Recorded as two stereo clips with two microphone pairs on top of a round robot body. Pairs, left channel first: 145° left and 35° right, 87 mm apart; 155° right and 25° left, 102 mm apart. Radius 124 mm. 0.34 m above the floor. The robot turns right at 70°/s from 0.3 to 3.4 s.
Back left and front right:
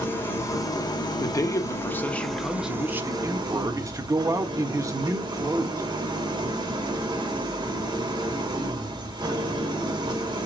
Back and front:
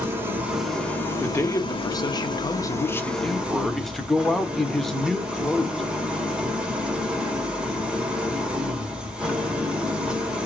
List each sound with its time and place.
0.0 s an engine running: 90° left, 1.8 m; by 10.5 s 55° right, 1.8 m
1.2 s a man speaking: 140° left, 1.0 m; by 5.8 s 70° right, 1.0 m